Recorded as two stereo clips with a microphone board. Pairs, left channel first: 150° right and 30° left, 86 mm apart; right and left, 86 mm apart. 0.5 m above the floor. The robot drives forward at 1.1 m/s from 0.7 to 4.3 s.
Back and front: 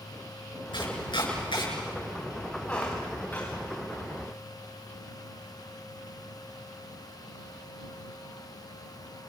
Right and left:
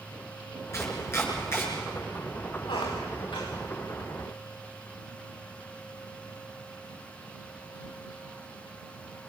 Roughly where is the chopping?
Behind right.